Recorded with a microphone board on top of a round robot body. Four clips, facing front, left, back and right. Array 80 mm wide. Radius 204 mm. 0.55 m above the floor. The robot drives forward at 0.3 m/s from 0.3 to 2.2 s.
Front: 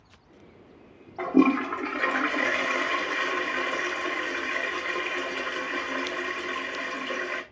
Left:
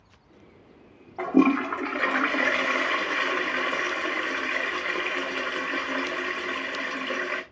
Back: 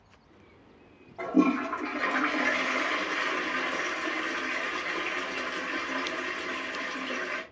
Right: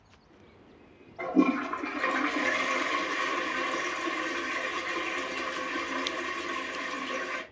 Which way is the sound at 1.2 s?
65° left.